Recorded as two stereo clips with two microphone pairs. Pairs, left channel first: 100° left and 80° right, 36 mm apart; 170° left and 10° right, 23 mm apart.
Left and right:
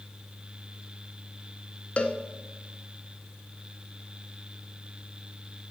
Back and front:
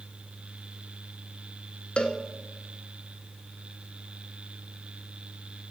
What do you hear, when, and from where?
2.0 s a cowbell: 150° left, 0.8 m